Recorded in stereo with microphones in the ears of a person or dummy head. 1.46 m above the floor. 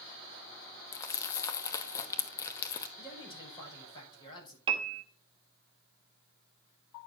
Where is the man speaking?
20° left (ahead or behind), 6 m.